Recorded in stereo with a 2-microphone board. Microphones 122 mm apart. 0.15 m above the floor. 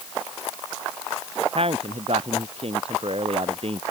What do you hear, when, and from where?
1.6 s a man speaking: 55° right (ahead or behind)